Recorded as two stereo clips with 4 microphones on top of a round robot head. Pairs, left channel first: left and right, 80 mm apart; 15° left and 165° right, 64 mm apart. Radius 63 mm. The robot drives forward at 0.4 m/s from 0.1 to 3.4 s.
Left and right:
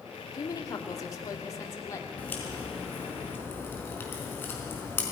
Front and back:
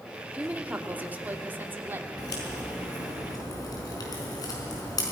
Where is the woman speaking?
125° left, 2.0 m; by 2.1 s 140° left, 2.5 m.